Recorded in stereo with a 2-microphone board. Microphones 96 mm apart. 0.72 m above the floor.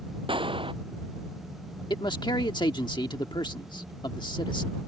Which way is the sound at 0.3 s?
60° right (ahead or behind).